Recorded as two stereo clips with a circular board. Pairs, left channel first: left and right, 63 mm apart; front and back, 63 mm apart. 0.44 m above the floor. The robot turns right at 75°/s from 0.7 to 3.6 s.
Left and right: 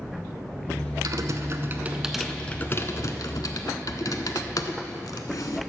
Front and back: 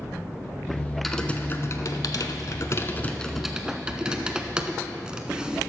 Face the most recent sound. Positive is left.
turn(degrees=105)